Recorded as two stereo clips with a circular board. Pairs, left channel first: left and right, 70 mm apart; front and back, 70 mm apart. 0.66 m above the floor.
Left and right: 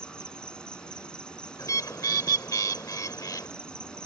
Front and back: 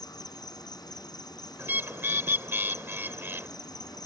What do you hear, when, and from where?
0.0 s an insect: 15° left
1.6 s a bird: 125° left